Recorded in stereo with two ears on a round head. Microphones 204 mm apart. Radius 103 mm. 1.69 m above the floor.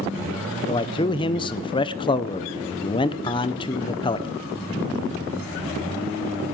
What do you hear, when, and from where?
0.7 s a man speaking: 20° left (ahead or behind), 0.5 m